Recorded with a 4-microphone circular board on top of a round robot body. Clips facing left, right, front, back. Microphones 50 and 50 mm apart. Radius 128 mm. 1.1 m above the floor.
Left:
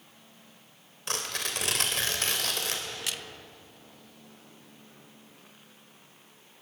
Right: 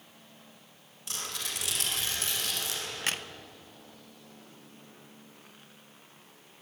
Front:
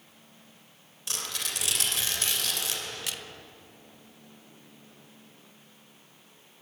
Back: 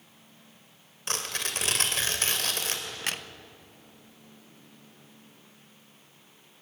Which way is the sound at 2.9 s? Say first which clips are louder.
Right 3 dB, back 3 dB; 135° right.